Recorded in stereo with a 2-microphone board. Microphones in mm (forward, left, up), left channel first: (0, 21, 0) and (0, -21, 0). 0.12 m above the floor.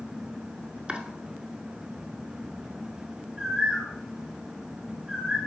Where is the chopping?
30° right (ahead or behind), 0.7 m.